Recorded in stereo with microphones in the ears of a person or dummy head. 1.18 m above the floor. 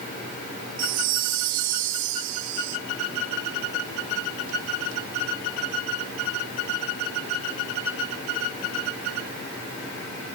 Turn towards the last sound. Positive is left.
turn(degrees=-50)  # may be behind; listen again after turning